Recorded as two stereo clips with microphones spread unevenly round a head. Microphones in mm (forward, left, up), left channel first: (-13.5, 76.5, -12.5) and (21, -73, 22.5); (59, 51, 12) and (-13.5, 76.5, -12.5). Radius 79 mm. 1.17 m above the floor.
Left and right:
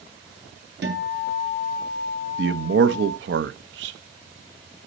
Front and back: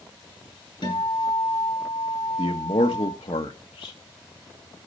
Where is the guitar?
60° right, 5 m.